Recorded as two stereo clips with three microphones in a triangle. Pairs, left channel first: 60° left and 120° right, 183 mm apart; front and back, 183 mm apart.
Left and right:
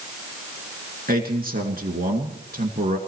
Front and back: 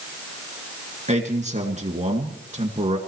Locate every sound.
1.1 s a man speaking: 140° right, 2.5 m